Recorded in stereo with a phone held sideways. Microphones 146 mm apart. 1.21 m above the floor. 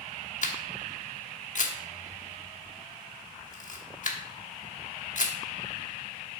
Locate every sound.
0.4 s a camera shutter: 55° left (ahead or behind), 1.2 m